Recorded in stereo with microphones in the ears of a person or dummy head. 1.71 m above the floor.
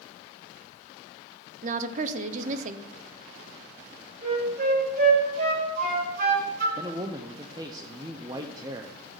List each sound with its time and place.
1.6 s a woman speaking: 45° right (ahead or behind), 0.7 m
4.2 s a flute: 55° right (ahead or behind), 4.5 m
6.8 s a man speaking: 25° right (ahead or behind), 0.8 m